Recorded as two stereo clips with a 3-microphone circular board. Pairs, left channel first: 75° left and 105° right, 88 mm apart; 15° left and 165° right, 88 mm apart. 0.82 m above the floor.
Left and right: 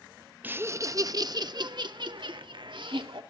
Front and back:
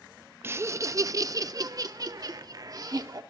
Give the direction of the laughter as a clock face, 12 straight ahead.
5 o'clock.